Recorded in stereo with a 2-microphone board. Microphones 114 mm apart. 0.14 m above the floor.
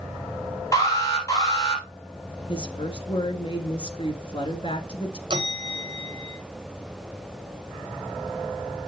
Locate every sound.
0.7 s an alarm: 30° left (ahead or behind), 3.5 m
2.5 s a woman speaking: 50° left (ahead or behind), 1.6 m
5.3 s a bell: 45° right (ahead or behind), 1.3 m